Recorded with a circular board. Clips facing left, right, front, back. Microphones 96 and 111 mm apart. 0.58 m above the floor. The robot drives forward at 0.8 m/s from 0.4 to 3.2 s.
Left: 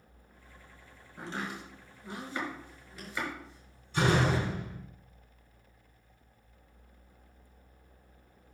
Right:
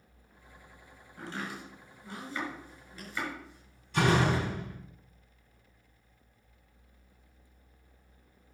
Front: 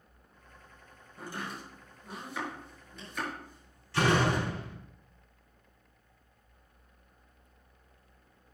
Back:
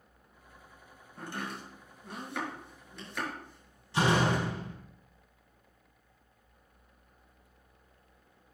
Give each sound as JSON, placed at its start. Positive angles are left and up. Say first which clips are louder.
{"t": 1.2, "sound": "chopping", "louder": "left 1 dB, back 1 dB", "azimuth_deg": 155, "distance_m": 5.0}
{"t": 3.9, "sound": "a door slam", "louder": "right 1 dB, even", "azimuth_deg": -110, "distance_m": 3.5}